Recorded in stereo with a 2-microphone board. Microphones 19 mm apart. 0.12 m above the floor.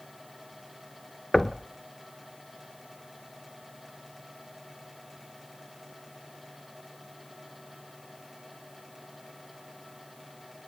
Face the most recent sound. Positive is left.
turn(degrees=20)  # may be behind; listen again after turning